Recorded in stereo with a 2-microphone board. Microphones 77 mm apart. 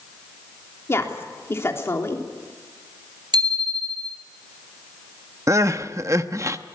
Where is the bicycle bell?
80° right, 3 m.